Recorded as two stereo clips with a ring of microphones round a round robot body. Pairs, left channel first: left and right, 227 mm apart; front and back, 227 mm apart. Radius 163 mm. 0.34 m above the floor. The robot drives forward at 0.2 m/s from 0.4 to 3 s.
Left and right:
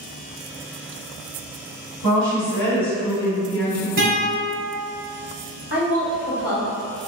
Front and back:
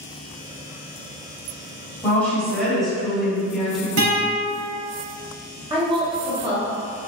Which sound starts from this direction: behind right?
A guitar, at 4.0 s.